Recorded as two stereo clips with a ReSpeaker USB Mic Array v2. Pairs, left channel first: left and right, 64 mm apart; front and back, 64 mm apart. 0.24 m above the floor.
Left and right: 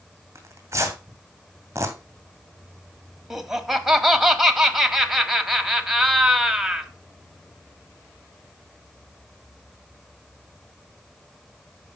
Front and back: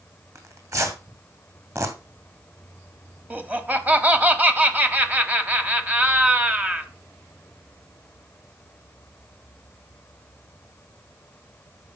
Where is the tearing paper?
140° right, 2.5 m.